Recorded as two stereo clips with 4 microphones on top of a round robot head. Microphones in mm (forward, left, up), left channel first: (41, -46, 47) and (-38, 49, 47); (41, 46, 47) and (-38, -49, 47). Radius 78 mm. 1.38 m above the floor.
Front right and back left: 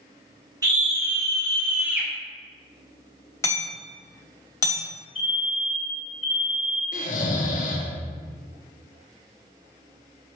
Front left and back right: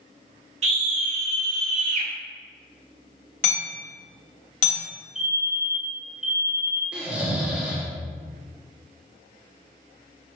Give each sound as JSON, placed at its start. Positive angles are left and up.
{"t": 0.6, "sound": "a scream", "azimuth_deg": -170, "distance_m": 2.5}
{"t": 3.4, "sound": "hammering", "azimuth_deg": 20, "distance_m": 2.5}
{"t": 5.2, "sound": "a fire alarm", "azimuth_deg": -45, "distance_m": 2.0}
{"t": 6.9, "sound": "snoring", "azimuth_deg": -45, "distance_m": 1.4}